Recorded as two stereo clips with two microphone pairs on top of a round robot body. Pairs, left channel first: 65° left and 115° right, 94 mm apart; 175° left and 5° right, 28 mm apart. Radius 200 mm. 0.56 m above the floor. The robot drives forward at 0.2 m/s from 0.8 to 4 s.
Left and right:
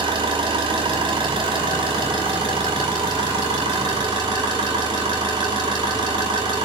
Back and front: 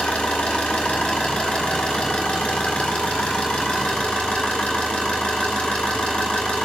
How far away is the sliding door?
No sliding door in this recording.